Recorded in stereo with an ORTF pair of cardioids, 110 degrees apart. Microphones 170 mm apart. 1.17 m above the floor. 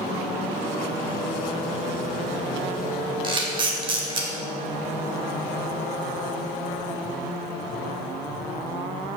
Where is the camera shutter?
30° right, 1.3 m.